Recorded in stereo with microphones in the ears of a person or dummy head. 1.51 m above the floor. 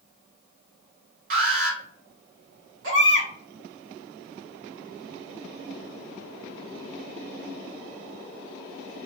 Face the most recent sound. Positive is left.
turn(degrees=-80)